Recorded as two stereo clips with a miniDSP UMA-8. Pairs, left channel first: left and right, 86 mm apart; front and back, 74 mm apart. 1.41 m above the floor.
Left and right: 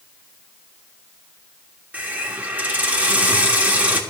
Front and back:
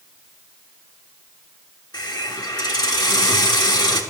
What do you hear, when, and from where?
1.9 s a hiss: 20° right, 1.2 m